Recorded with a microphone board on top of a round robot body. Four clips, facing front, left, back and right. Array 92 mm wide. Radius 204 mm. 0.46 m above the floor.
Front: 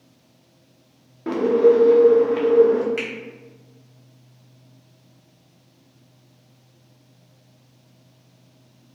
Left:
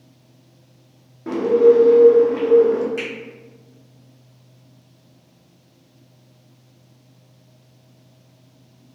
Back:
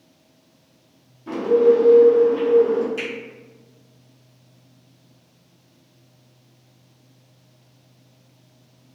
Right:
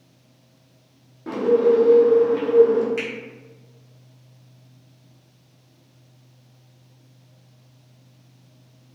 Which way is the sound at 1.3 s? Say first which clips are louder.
Left 4 dB, even; 10° left.